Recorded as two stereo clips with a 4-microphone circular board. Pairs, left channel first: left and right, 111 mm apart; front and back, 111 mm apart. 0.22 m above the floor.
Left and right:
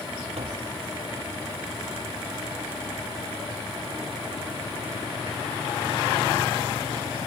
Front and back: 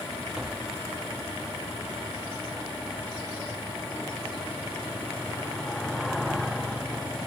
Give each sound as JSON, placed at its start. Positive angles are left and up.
{"t": 0.4, "sound": "tapping", "azimuth_deg": -100}